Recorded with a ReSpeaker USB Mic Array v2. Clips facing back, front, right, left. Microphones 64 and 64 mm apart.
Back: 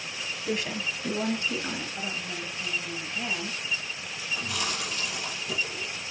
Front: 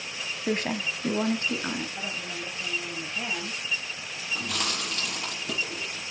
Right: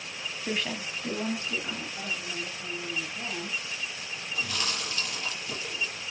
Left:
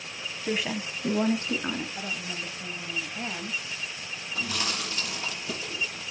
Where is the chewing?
25° left, 5 m.